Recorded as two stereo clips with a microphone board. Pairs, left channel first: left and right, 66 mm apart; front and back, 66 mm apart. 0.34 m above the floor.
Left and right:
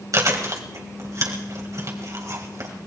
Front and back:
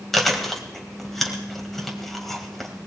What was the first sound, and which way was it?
Chewing, 85° right.